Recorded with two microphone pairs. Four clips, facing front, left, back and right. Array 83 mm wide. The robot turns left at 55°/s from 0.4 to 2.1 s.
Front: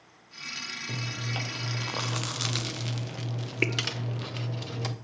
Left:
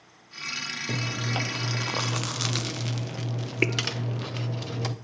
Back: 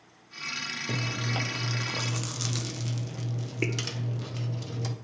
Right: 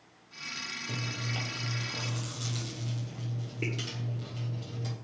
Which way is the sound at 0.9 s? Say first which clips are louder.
Left 7 dB, back 4 dB; 135° left.